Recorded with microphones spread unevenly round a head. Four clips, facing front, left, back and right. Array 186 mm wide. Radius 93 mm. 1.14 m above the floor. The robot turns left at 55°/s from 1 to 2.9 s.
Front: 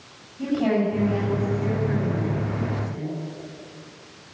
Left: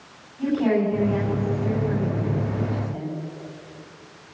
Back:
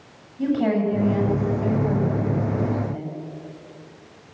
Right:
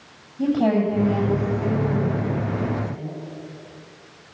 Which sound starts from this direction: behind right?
A woman speaking, at 0.4 s.